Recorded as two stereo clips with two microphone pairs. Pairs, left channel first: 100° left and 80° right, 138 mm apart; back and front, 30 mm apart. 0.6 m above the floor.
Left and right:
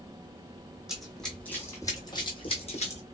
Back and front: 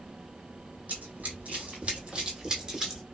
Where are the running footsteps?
5° left, 1.2 m; by 3.0 s 75° left, 1.2 m.